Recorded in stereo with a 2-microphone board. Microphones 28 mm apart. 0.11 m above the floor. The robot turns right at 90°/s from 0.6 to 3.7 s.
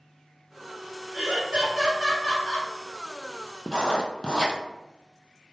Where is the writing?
25° left (ahead or behind), 0.7 m; by 4.6 s 30° left (ahead or behind), 0.7 m.